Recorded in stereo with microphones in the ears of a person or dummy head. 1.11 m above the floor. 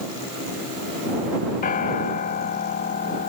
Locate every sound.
1.6 s a piano: 45° left (ahead or behind)